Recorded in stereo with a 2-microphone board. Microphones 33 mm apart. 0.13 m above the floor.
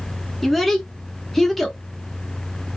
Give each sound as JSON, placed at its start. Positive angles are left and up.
{"t": 0.4, "sound": "a child speaking", "side_deg": 5, "distance_m": 0.7}